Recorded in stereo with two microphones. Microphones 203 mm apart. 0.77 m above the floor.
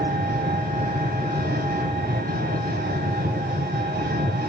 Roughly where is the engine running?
Right.